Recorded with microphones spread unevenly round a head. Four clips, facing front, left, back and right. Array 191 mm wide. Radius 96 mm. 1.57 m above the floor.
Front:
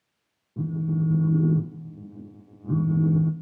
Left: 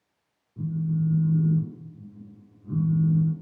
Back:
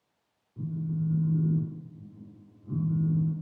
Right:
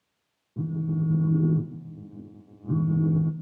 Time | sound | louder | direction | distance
0.6 | a phone buzzing | left 1 dB, front 6 dB | 35° right | 1.9 m